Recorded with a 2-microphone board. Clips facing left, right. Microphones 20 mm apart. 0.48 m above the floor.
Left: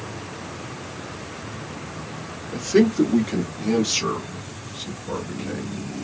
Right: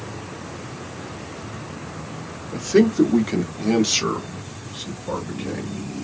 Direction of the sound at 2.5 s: 5° right (ahead or behind).